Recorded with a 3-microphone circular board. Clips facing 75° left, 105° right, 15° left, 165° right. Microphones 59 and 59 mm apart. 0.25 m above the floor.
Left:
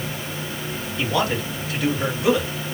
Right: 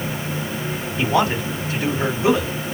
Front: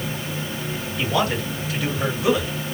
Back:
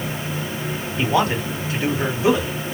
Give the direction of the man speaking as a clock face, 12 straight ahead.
5 o'clock.